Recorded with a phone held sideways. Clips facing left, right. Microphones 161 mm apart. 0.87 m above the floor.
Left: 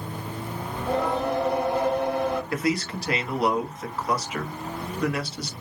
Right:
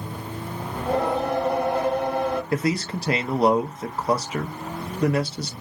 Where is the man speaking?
30° right (ahead or behind), 0.6 m.